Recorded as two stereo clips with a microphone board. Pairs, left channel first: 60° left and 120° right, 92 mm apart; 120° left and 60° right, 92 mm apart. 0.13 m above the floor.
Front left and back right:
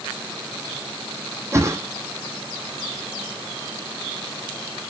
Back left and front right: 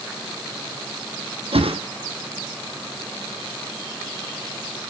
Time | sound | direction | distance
1.5 | a whoosh | 60° right | 1.4 m